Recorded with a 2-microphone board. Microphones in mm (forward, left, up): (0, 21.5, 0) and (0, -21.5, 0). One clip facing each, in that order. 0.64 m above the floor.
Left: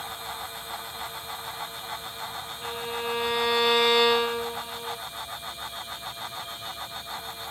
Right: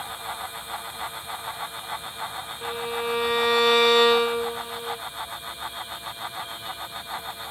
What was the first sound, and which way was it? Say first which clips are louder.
A violin: right 3 dB; 75° right (ahead or behind).